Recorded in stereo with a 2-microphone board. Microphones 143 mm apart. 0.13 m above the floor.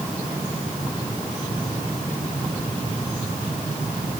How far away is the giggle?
I don't hear a giggle.